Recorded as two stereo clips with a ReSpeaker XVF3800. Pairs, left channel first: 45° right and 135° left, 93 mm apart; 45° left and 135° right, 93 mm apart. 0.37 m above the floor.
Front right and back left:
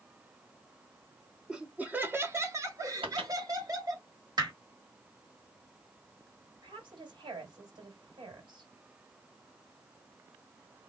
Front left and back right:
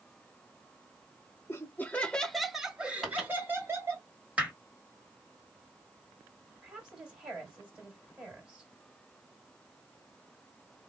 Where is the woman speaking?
145° left, 2.5 m.